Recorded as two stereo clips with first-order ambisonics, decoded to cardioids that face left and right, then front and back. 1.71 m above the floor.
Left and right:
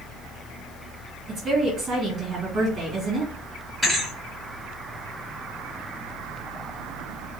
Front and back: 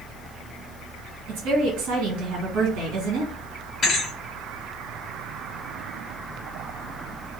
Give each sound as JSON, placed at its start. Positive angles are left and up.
{"t": 1.3, "sound": "a woman speaking", "azimuth_deg": -155, "distance_m": 2.0}
{"t": 3.8, "sound": "a thud", "azimuth_deg": -20, "distance_m": 1.6}